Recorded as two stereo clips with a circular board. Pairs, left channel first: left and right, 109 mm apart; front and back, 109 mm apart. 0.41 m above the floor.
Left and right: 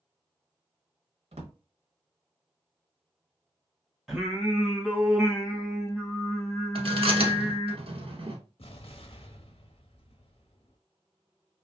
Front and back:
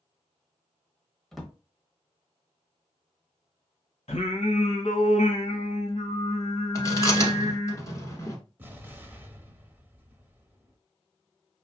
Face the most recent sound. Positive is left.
turn(degrees=105)